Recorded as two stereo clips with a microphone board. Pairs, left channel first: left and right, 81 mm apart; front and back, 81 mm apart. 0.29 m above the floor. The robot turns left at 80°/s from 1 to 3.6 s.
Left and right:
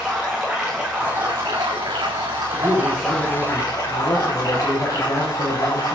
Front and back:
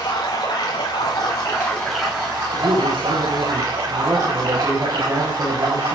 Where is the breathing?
I don't hear breathing.